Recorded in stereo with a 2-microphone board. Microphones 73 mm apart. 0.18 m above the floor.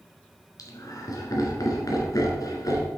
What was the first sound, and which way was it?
Laughter, 60° left (ahead or behind).